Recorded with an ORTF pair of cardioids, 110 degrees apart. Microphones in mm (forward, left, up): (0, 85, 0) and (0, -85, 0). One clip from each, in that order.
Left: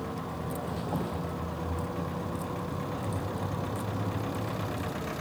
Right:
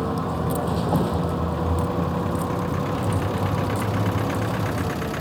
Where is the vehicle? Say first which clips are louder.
Right 10 dB; 60° right; by 5.2 s 50° right.